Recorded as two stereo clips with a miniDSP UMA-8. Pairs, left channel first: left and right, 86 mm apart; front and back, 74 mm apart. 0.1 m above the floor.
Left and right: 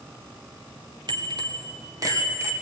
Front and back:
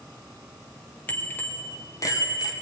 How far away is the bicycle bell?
About 2 m.